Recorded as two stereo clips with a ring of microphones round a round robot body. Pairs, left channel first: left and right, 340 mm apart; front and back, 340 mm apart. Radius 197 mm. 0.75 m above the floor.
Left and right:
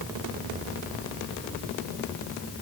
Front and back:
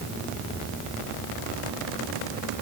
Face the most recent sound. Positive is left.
No sound to turn to.